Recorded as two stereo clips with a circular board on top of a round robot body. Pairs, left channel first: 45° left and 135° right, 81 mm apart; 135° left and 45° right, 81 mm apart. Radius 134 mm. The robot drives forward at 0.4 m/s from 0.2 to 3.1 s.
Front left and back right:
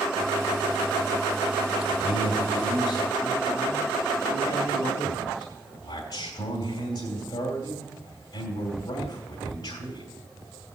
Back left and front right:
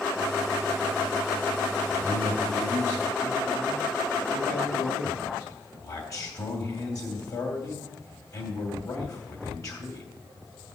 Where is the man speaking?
80° left, 3 m; by 10.1 s 85° left, 3 m.